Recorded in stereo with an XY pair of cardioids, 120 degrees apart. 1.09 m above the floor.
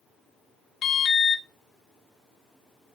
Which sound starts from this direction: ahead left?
An alarm, at 0.8 s.